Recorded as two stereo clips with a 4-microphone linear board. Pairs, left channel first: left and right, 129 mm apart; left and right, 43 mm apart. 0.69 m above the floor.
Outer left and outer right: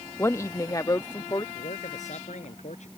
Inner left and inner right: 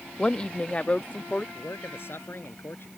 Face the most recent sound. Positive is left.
turn(degrees=65)  # may be behind; listen again after turning